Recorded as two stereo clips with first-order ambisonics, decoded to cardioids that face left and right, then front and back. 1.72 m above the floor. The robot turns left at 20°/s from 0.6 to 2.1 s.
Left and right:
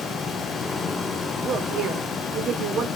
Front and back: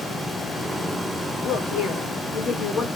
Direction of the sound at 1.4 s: 35° right.